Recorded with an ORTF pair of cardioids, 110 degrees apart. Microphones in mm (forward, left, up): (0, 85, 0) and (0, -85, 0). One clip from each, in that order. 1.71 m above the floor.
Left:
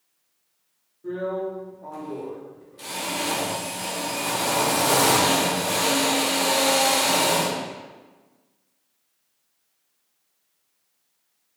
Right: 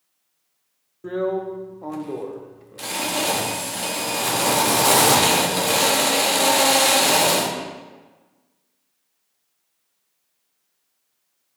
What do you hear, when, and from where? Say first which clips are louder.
1.0 s a drill: right 3 dB; 50° right, 0.6 m